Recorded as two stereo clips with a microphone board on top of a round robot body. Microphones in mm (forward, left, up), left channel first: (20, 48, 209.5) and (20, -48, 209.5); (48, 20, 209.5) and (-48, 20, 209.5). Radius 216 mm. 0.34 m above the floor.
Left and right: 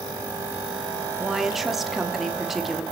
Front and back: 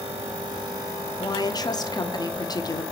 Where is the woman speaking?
5° right, 1.3 m.